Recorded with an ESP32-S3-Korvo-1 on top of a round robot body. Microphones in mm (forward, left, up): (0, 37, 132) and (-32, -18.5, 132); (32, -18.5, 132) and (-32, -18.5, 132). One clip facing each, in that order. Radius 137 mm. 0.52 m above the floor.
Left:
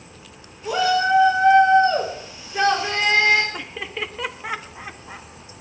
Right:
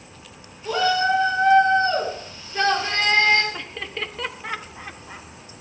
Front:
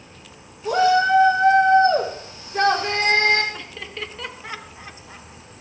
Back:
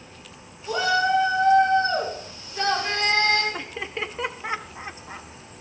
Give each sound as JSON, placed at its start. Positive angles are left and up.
{"t": 0.7, "sound": "a shout", "azimuth_deg": -20, "distance_m": 3.0}
{"t": 3.5, "sound": "laughter", "azimuth_deg": 135, "distance_m": 1.4}